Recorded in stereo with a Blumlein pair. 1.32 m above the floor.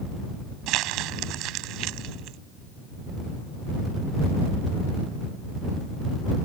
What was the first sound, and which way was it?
Crumpling, 40° right.